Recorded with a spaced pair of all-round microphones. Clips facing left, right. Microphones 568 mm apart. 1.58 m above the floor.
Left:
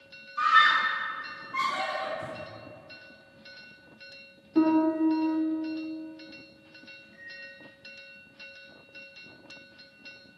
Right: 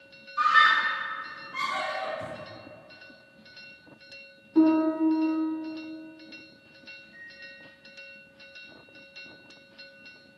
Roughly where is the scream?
Right.